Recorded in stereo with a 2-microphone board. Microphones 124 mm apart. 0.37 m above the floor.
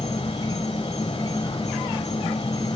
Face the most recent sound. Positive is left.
turn(degrees=35)  # may be behind; listen again after turning